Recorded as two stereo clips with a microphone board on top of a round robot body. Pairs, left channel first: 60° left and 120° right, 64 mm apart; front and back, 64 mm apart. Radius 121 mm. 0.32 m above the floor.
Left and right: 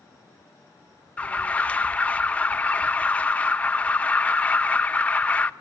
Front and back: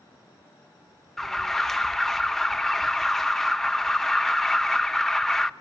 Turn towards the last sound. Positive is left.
turn(degrees=75)